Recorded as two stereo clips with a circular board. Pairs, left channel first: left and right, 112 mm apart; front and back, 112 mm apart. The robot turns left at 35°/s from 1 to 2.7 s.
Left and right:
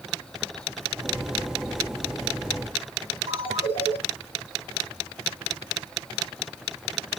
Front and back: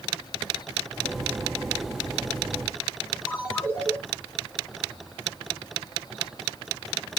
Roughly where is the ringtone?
Right.